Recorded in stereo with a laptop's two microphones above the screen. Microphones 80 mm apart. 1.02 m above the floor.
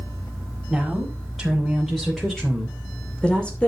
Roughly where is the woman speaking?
Centre.